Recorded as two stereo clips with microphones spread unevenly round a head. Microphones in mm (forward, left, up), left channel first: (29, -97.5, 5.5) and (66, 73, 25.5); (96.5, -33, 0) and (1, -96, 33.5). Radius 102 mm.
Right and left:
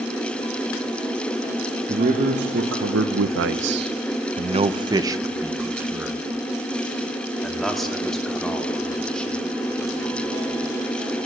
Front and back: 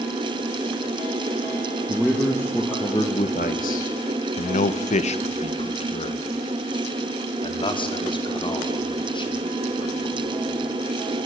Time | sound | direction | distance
1.9 | a man speaking | 130° left | 1.3 m